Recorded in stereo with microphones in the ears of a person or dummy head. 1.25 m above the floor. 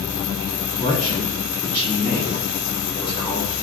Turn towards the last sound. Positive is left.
turn(degrees=20)  # may be behind; listen again after turning